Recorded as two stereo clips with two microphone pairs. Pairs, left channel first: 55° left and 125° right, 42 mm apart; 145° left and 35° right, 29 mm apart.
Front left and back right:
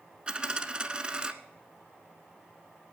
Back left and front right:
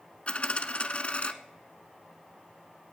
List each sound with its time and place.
0.3 s a dropped coin: 170° left, 0.9 m